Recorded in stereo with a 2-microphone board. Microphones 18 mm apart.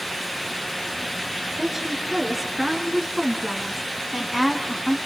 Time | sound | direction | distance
1.6 | a woman speaking | 10° right (ahead or behind) | 5.5 m